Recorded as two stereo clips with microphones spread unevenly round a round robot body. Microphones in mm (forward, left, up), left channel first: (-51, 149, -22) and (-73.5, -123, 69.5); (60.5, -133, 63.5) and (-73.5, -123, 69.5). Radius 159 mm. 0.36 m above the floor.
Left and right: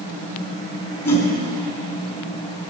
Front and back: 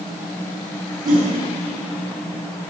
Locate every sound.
1.1 s a whoosh: 160° left, 3 m